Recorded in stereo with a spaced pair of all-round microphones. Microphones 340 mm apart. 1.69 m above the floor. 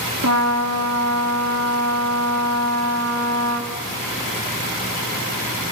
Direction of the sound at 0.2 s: 50° right (ahead or behind).